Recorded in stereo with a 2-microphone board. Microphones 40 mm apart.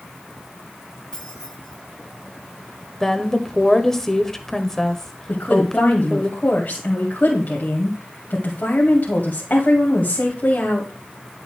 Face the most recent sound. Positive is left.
turn(degrees=50)  # may be behind; listen again after turning